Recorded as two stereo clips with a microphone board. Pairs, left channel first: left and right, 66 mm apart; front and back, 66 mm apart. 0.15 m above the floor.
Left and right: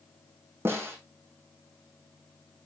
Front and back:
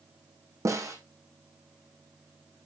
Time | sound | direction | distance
0.7 | a snare drum | 145° right | 4 m